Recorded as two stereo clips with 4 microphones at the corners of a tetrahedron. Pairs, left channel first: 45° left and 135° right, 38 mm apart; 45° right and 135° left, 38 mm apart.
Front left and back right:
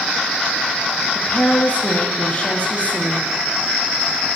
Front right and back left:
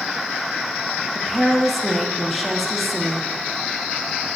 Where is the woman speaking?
40° left, 1.0 m.